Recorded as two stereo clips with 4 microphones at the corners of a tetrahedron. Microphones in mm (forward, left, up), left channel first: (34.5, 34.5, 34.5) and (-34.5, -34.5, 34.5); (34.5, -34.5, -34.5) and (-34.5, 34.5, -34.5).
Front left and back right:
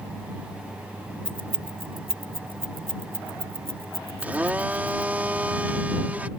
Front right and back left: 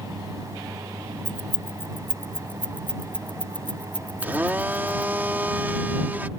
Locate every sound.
1.2 s keys jangling: 115° right; by 5.1 s 120° right
4.2 s a blender: 175° left